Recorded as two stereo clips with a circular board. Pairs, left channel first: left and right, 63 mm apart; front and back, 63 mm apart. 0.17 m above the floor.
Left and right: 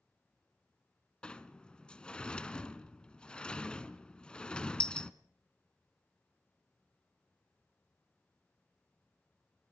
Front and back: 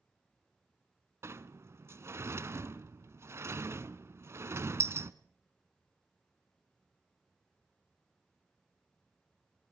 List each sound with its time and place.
1.2 s a sliding door: 160° left, 0.8 m